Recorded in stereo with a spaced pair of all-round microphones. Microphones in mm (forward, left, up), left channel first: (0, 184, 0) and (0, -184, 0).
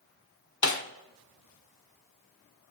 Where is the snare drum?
50° left (ahead or behind), 1.1 m.